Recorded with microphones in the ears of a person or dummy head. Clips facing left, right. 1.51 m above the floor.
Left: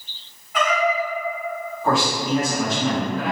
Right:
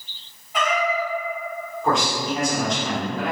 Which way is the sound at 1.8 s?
5° left (ahead or behind).